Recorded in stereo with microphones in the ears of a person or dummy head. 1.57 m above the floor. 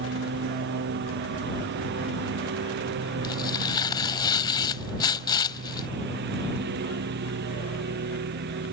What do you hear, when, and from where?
0.0 s a lawn mower: 60° right (ahead or behind); by 8.7 s 55° right (ahead or behind)
3.2 s tearing paper: 25° left (ahead or behind)